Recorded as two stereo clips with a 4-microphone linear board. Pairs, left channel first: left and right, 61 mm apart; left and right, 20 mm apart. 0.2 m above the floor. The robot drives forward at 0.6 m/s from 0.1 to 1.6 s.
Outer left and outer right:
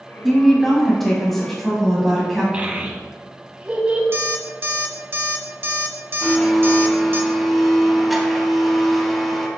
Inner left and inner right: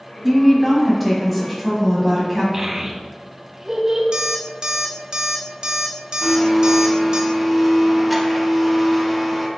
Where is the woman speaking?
Centre (ahead or behind), 1.0 m.